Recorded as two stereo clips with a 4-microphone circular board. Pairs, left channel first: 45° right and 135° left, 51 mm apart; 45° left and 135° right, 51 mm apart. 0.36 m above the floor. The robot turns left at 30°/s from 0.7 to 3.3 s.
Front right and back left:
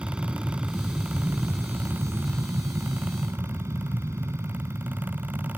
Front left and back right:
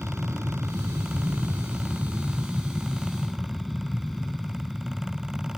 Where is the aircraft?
155° right; by 5.6 s 130° left.